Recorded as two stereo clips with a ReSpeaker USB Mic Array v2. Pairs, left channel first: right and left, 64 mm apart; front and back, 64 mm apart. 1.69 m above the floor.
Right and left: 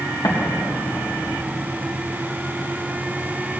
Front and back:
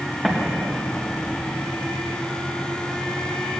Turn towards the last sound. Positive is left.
turn(degrees=-90)